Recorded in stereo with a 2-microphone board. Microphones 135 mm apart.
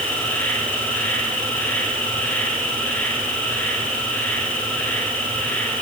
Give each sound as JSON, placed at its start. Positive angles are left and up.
{"t": 0.0, "sound": "an insect", "side_deg": 10, "distance_m": 8.0}